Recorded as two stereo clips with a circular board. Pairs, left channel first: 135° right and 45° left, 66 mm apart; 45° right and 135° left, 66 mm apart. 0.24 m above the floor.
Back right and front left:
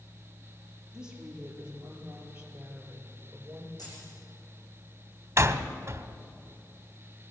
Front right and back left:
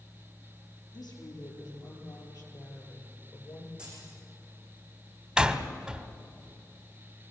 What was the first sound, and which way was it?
A woman speaking, 35° right.